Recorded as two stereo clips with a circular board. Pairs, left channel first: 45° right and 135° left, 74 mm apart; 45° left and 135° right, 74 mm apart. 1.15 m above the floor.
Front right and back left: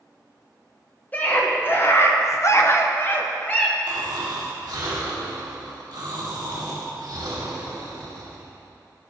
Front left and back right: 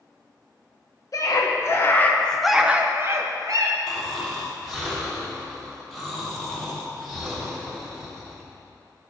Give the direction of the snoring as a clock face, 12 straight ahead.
7 o'clock.